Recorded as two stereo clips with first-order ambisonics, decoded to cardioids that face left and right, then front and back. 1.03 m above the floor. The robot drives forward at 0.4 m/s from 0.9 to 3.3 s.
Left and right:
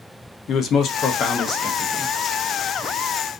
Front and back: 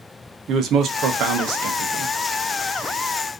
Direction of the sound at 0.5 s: 135° left.